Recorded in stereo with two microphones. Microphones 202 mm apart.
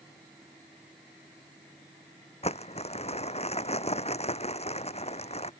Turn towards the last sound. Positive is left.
turn(degrees=30)  # may be behind; listen again after turning